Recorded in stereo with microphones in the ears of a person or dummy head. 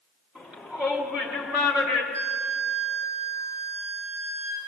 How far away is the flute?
About 3.5 m.